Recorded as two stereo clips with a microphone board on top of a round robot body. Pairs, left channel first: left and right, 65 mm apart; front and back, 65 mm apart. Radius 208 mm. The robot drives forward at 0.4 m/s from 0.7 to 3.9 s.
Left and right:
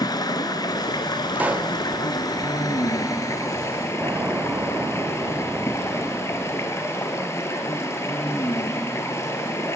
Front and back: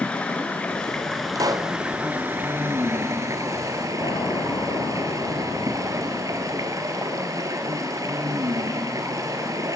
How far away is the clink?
I don't hear a clink.